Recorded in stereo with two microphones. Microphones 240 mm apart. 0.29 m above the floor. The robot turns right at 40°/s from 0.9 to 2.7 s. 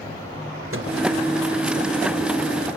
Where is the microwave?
60° right (ahead or behind), 3.5 m; by 0.9 s 65° right (ahead or behind), 3.5 m.